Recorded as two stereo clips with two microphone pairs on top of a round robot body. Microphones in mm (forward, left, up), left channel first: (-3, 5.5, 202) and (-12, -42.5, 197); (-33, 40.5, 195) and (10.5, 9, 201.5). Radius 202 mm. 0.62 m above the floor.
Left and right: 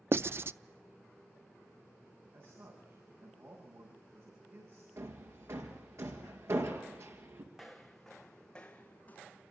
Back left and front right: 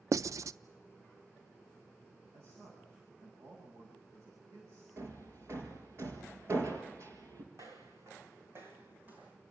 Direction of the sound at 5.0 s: 70° right.